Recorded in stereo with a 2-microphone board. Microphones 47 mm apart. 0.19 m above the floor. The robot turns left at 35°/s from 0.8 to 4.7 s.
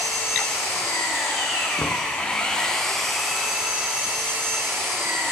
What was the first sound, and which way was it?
An engine running, 80° left.